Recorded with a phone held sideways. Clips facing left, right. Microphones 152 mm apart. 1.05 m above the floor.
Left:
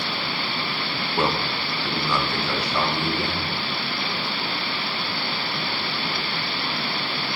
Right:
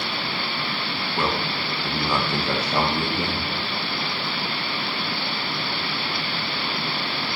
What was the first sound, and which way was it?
A man speaking, 20° left (ahead or behind).